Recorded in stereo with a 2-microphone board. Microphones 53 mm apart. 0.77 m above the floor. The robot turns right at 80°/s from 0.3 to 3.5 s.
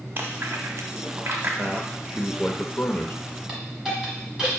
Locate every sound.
0.2 s chewing: 45° right (ahead or behind), 0.7 m; by 1.5 s 40° right (ahead or behind), 0.7 m
1.6 s a man speaking: 45° right, 0.5 m; by 3.1 s 80° left, 0.5 m
3.5 s a hiss: 10° right (ahead or behind), 1.2 m